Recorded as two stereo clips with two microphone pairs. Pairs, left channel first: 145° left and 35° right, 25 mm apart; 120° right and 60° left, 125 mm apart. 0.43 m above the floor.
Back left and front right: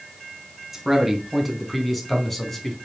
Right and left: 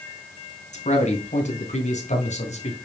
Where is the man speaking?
110° right, 3.5 m; by 2.8 s 140° right, 3 m.